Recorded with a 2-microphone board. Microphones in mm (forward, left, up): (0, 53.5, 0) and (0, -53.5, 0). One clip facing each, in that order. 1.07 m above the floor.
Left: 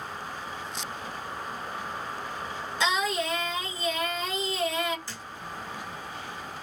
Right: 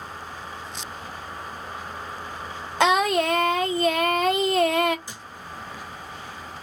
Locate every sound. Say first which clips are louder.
2.8 s singing: right 8 dB; 60° right (ahead or behind), 0.6 m
5.1 s a thud: right 1 dB; 15° right (ahead or behind), 0.7 m